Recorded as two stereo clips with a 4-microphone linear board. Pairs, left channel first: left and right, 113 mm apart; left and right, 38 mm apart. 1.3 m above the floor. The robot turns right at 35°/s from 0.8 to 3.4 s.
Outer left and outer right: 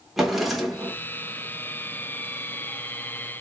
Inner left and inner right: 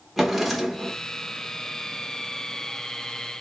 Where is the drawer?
Centre (ahead or behind), 0.9 m; by 1.0 s 5° left (ahead or behind), 0.9 m.